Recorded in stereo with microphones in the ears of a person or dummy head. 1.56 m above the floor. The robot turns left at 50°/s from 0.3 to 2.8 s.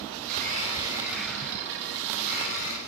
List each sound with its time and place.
0.2 s a blender: 120° right, 7 m; by 2.8 s 115° left, 7 m